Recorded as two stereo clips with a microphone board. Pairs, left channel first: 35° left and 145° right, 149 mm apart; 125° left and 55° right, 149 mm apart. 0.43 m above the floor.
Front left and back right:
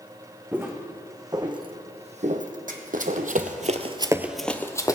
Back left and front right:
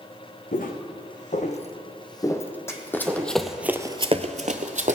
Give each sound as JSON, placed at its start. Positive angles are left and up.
{"t": 0.5, "sound": "footsteps", "azimuth_deg": 140, "distance_m": 1.8}
{"t": 2.7, "sound": "running footsteps", "azimuth_deg": -165, "distance_m": 1.4}